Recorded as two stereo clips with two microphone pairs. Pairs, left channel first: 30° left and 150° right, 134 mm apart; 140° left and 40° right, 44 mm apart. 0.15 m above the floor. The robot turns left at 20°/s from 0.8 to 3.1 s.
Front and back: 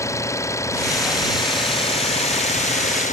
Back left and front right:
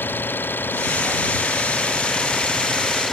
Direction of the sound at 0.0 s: 100° left.